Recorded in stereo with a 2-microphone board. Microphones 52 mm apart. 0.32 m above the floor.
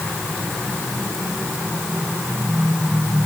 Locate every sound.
Only background noise.